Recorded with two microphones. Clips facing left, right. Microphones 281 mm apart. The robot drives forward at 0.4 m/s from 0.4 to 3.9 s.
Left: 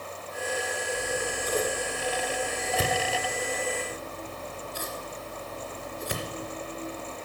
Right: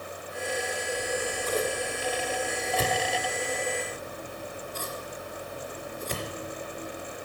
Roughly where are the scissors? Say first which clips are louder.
Right 1 dB; centre.